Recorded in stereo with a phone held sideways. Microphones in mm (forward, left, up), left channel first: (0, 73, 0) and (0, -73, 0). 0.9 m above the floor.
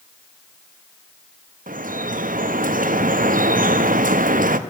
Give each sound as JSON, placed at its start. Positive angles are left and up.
{"t": 1.7, "sound": "dripping", "side_deg": -70, "distance_m": 0.6}